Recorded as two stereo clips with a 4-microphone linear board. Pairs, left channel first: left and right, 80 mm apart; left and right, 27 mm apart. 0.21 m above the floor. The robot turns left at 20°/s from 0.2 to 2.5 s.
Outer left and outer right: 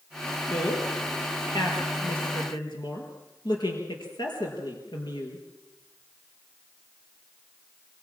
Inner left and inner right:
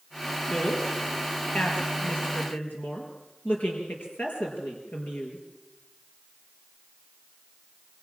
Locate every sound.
0.5 s a woman speaking: 50° left (ahead or behind), 4.5 m; by 5.4 s 75° left (ahead or behind), 4.5 m